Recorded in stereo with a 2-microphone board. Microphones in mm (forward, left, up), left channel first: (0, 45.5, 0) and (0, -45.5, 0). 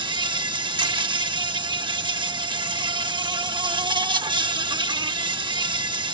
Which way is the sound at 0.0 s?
60° right (ahead or behind).